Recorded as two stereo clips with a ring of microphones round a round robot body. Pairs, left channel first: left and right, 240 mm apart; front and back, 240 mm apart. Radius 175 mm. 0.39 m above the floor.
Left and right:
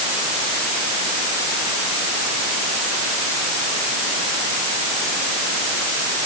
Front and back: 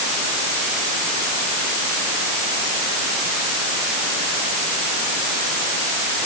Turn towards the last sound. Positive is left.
No sound to turn to.